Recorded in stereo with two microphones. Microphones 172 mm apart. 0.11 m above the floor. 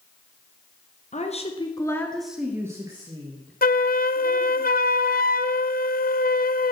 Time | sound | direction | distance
1.1 | a woman speaking | 45° left (ahead or behind) | 1.8 m
3.6 | a flute | 60° left (ahead or behind) | 0.5 m